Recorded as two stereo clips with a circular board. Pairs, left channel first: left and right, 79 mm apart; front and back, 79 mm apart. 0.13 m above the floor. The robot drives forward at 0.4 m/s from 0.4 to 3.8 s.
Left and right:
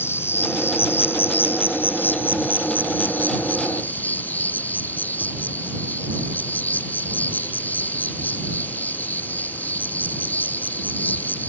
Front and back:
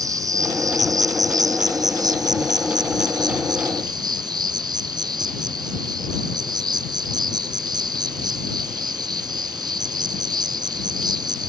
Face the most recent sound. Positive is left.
turn(degrees=155)